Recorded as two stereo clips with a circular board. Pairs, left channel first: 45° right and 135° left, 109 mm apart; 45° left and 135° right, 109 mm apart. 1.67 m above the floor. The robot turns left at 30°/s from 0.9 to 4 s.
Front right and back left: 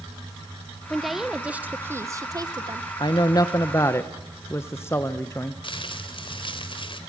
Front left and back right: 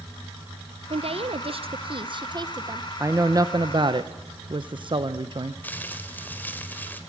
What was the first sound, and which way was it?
A woman speaking, 130° right.